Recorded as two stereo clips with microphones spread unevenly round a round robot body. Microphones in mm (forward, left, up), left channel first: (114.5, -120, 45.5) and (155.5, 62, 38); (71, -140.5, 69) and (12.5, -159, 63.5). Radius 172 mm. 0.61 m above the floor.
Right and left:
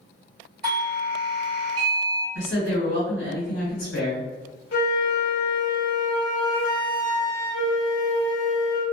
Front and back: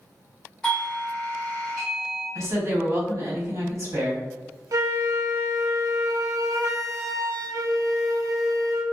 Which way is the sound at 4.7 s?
130° right.